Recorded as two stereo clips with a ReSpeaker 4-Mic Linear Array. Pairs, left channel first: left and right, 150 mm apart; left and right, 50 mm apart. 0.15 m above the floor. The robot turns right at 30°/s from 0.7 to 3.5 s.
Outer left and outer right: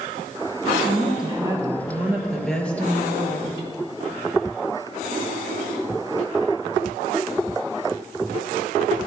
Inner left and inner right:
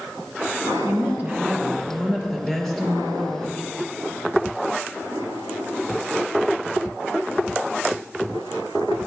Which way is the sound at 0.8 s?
45° right.